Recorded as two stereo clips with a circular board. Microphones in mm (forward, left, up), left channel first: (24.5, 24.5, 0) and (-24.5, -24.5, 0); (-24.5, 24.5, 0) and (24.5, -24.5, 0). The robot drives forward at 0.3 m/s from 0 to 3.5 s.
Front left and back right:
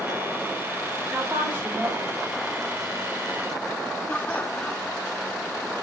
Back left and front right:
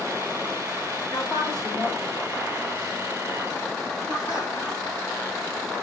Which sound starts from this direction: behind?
A woman speaking, at 1.1 s.